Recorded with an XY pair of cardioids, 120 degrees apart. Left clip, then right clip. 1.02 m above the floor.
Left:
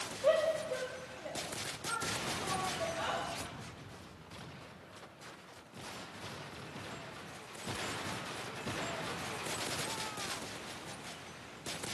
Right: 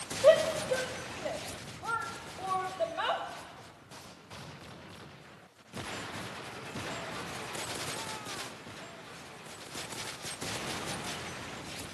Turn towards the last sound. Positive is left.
turn(degrees=-50)